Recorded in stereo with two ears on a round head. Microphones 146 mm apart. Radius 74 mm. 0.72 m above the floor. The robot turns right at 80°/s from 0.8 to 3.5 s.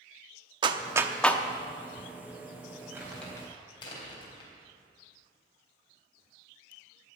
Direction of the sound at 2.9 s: 20° right (ahead or behind).